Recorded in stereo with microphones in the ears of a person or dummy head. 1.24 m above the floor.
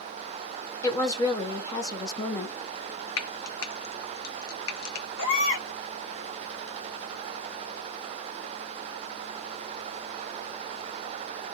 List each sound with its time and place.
0.8 s a woman speaking: 15° left (ahead or behind), 0.9 m
3.2 s frying: 75° left (ahead or behind), 0.7 m
5.2 s a baby crying: 70° left (ahead or behind), 1.1 m